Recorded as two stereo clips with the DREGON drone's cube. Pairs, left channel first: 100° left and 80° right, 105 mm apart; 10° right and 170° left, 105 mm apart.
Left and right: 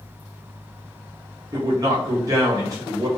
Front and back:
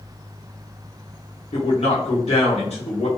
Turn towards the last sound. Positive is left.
turn(degrees=-20)